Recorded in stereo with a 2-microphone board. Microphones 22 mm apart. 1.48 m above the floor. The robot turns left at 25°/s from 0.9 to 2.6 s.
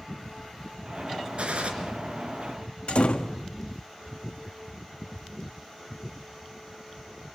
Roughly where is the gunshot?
Right.